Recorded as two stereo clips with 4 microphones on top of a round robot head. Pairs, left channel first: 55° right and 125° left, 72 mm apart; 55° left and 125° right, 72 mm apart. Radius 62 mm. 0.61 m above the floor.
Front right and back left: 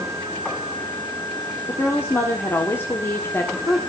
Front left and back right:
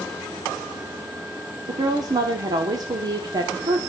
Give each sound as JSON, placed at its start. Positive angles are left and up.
{"t": 1.7, "sound": "a woman speaking", "azimuth_deg": -110, "distance_m": 1.5}